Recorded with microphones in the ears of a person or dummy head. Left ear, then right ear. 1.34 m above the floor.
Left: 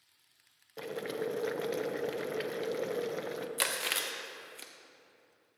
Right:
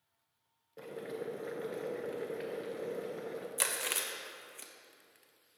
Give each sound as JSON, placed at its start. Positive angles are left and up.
{"t": 0.8, "sound": "boiling", "side_deg": 30, "distance_m": 0.7}
{"t": 3.6, "sound": "chewing", "side_deg": 5, "distance_m": 0.7}